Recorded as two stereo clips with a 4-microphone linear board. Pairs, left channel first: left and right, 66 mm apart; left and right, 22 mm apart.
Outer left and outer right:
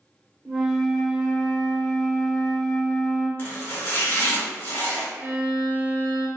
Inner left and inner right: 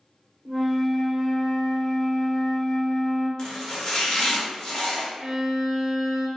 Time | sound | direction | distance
0.5 | a flute | 5° right (ahead or behind) | 0.9 m
3.4 | chopping | 35° left (ahead or behind) | 1.1 m
5.2 | a violin | 30° right (ahead or behind) | 0.6 m